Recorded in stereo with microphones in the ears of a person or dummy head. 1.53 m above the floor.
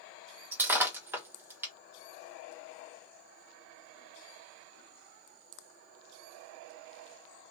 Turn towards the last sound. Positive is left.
turn(degrees=-10)  # may be behind; listen again after turning